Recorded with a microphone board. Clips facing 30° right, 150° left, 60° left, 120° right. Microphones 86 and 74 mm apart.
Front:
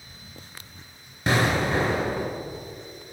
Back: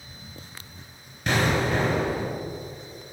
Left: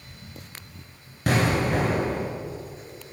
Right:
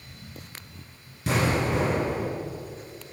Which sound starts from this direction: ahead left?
An explosion, at 1.3 s.